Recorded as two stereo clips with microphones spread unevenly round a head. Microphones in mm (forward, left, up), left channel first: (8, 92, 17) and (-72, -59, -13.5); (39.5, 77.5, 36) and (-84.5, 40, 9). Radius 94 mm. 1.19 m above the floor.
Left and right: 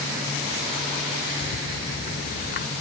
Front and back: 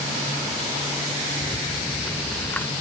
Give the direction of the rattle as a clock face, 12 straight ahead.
9 o'clock.